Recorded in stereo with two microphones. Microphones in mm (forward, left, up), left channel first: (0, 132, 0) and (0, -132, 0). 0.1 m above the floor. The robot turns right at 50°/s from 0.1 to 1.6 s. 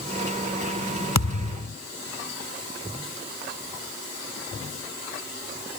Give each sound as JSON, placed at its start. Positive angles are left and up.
{"t": 1.1, "sound": "a thud", "side_deg": 85}